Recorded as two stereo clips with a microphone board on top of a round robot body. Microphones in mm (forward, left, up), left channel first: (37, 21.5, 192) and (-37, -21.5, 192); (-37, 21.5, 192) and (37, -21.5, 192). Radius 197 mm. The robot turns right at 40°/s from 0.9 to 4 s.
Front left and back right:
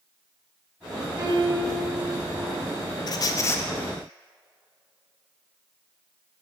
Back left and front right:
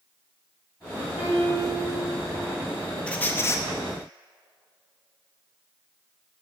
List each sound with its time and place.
1.2 s a piano: 150° left, 3 m; by 1.8 s 175° left, 3 m
3.1 s a squeak: 70° left, 0.6 m; by 3.6 s 95° left, 0.6 m